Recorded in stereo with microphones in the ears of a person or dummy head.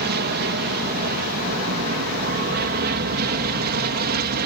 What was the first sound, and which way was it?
An aircraft, 50° right (ahead or behind).